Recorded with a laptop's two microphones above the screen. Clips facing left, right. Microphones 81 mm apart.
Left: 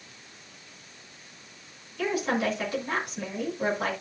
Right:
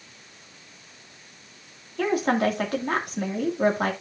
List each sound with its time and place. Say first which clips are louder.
2.0 s a woman speaking: right 4 dB; 55° right (ahead or behind), 2 m